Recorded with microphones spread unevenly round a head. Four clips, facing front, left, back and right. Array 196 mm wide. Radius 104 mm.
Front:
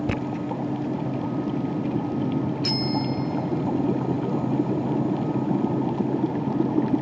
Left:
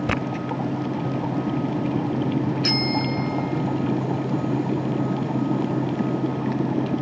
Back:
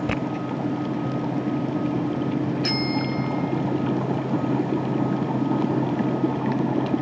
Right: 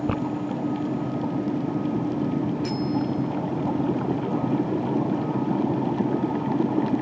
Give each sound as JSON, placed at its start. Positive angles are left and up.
{"t": 2.6, "sound": "a bicycle bell", "azimuth_deg": 105}